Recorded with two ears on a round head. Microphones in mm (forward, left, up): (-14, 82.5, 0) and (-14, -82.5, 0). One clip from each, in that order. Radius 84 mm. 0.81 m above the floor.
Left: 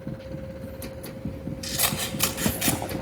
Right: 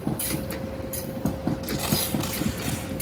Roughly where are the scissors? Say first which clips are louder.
Left 3 dB; left.